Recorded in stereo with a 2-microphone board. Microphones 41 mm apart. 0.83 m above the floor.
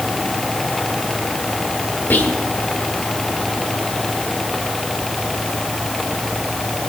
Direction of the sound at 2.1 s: 55° left (ahead or behind).